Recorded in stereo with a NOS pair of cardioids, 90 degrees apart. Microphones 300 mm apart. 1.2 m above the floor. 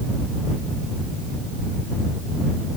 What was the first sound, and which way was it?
Only background noise.